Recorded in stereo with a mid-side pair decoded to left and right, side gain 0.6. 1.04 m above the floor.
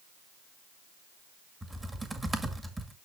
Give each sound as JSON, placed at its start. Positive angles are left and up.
{"t": 1.6, "sound": "typing on a keyboard", "azimuth_deg": -15, "distance_m": 2.0}